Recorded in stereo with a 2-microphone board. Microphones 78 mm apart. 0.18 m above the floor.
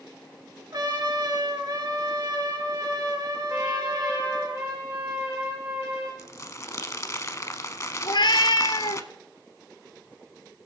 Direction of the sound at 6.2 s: 40° left (ahead or behind).